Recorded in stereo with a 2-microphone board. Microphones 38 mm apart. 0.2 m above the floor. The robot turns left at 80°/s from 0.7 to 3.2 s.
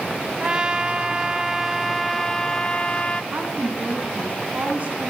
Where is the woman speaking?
45° right (ahead or behind), 2 m.